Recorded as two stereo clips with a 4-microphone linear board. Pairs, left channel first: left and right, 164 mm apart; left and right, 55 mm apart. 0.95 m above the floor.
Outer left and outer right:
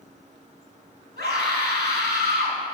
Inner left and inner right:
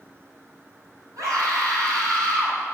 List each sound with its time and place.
1.2 s a scream: 80° right, 7 m